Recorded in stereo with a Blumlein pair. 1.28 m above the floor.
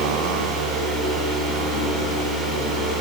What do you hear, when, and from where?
0.0 s a fan: 15° right, 7.5 m